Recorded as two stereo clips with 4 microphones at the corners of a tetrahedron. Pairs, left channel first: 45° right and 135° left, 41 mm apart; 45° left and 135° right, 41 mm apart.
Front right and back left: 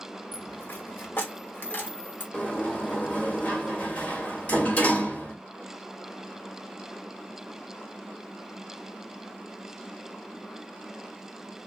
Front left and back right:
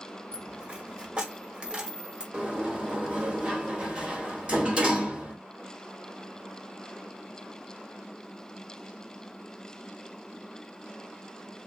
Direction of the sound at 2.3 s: 80° right.